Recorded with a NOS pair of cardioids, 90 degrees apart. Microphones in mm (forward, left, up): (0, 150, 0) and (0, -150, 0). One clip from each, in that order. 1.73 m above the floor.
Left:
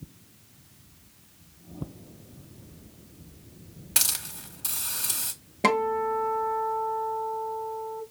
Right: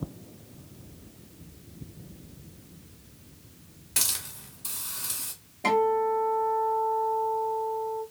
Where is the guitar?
65° left, 0.9 m.